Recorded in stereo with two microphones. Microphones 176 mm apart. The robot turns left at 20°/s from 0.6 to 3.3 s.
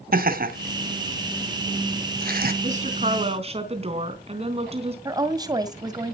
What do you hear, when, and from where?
0.1 s laughter: 60° right (ahead or behind), 2.5 m
2.6 s a woman speaking: 50° right (ahead or behind), 4 m; by 5.0 s 35° right (ahead or behind), 4 m
5.0 s a woman speaking: 20° right (ahead or behind), 2 m